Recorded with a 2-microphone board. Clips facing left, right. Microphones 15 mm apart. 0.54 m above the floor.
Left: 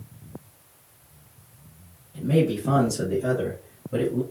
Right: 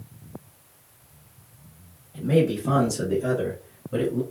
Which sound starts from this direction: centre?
A man speaking, at 2.1 s.